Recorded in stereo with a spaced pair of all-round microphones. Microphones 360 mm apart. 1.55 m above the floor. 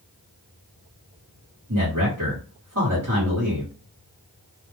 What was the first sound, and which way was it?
A man speaking, 45° right (ahead or behind).